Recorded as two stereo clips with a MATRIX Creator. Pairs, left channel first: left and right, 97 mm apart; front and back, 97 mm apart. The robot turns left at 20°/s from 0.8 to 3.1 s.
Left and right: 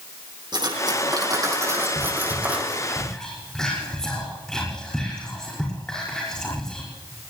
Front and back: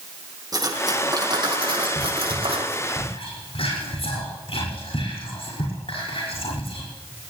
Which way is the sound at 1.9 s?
30° left.